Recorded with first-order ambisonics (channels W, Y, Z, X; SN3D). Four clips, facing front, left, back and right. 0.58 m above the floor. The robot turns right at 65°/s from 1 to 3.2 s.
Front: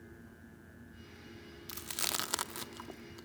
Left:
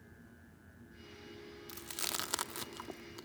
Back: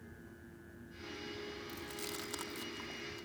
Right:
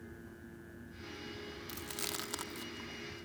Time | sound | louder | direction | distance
1.7 | chewing | left 1 dB, front 5 dB | 15° right | 0.6 m